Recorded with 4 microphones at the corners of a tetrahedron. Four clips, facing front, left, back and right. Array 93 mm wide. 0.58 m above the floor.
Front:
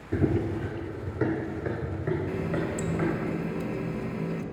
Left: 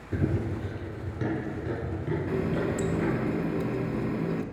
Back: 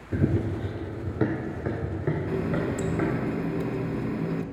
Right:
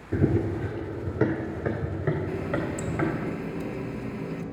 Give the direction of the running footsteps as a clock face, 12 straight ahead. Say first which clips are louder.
Right 5 dB, even; 3 o'clock.